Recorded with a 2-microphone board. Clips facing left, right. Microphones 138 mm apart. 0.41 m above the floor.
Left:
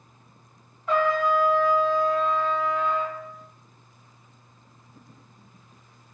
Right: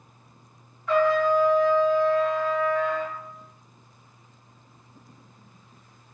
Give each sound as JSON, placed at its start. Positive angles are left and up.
{"t": 0.9, "sound": "a trumpet", "side_deg": 25, "distance_m": 0.9}